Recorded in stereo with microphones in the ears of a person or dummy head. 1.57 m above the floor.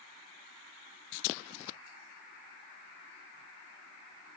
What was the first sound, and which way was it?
Only background noise.